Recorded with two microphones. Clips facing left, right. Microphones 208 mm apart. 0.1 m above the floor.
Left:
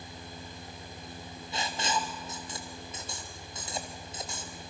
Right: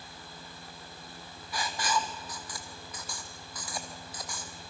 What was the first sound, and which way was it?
Writing, 25° left (ahead or behind).